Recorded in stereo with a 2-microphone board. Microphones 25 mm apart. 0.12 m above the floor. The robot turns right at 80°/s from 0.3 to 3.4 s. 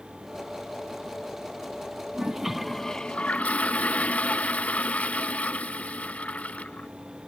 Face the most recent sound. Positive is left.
turn(degrees=65)